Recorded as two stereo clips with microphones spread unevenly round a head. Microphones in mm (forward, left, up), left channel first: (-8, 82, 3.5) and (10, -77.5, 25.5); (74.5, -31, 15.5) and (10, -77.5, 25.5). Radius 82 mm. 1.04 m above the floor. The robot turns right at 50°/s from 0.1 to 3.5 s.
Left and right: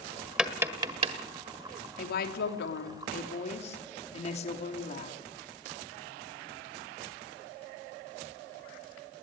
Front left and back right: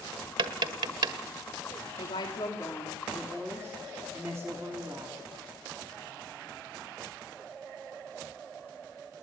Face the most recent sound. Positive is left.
turn(degrees=145)